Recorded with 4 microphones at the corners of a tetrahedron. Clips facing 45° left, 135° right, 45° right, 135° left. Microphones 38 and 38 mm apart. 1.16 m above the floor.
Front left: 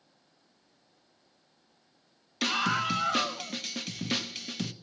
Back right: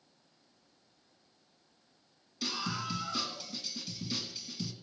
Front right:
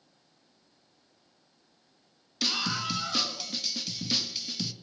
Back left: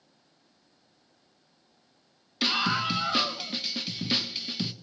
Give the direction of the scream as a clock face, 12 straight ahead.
10 o'clock.